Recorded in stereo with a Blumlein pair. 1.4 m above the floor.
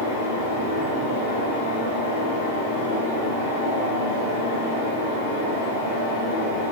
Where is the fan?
65° left, 1.4 m.